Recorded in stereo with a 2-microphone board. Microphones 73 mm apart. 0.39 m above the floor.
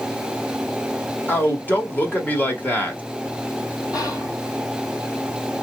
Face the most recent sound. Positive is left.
turn(degrees=55)  # may be behind; listen again after turning